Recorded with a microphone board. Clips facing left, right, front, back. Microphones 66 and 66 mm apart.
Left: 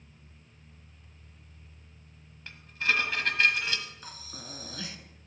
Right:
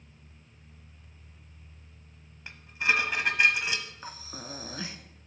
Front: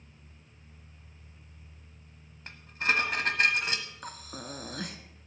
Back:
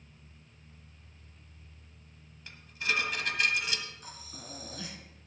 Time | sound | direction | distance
2.5 | dishes clattering | 20° right | 1.2 m
4.0 | breathing | 25° right | 0.9 m